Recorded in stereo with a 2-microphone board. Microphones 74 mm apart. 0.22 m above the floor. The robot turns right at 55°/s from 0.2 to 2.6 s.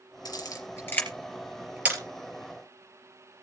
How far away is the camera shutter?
About 4 m.